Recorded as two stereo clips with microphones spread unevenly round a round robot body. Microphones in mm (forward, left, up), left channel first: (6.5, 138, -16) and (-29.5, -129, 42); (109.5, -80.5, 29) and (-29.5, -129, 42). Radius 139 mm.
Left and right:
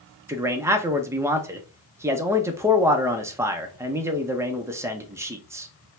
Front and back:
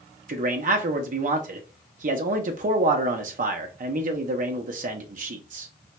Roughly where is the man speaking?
Behind.